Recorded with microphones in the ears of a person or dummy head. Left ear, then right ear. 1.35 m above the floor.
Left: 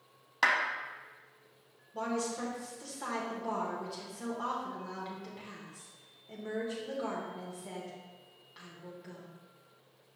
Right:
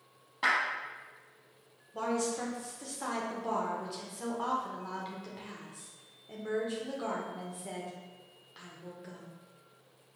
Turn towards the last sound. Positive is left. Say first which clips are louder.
# right 2 dB
turn(degrees=-10)  # may be behind; listen again after turning